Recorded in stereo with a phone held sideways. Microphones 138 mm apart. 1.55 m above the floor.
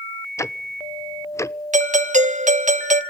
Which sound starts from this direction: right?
A doorbell, at 1.7 s.